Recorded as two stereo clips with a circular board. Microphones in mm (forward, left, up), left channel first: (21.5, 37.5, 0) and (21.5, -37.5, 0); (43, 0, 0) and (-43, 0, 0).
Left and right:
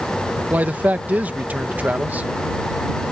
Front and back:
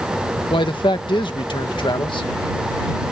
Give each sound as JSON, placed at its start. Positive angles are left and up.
{"t": 0.5, "sound": "a man speaking", "azimuth_deg": -20}